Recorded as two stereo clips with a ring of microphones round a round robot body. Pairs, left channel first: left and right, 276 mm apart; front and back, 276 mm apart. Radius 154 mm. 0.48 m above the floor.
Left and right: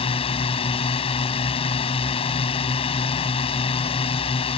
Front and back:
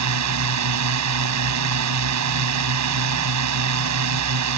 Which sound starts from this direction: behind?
A drone, at 0.0 s.